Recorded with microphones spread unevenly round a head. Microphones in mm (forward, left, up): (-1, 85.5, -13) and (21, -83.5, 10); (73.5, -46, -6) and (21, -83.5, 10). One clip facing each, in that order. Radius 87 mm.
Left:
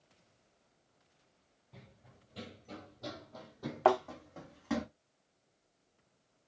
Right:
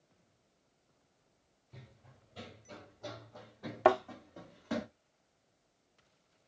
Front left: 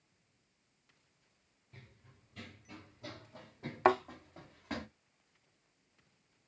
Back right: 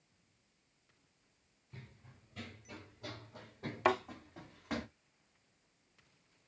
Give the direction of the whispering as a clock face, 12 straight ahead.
No whispering in this recording.